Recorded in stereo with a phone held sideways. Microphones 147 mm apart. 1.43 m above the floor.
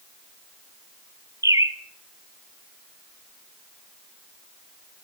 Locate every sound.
1.4 s a bird: 25° right (ahead or behind), 0.6 m